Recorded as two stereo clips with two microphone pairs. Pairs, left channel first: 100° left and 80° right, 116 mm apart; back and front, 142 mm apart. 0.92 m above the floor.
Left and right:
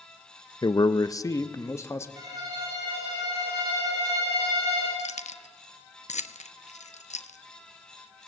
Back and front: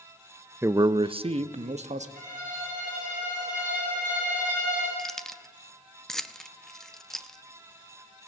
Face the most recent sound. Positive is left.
turn(degrees=90)